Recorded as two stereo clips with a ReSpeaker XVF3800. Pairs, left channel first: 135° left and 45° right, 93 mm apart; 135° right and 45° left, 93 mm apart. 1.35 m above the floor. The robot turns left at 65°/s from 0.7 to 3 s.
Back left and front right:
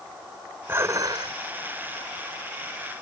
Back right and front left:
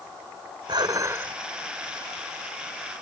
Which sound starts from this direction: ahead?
Dishes clattering, at 0.7 s.